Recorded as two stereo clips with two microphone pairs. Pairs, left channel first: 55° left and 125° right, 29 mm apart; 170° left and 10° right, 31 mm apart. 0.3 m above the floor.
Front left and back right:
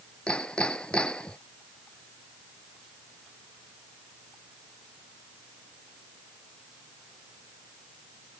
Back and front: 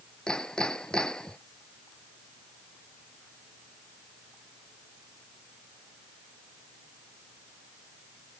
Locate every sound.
0.3 s hammering: 105° left